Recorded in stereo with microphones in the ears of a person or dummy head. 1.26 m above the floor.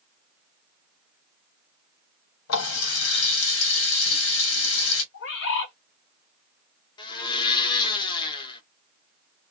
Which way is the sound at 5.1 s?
60° left (ahead or behind).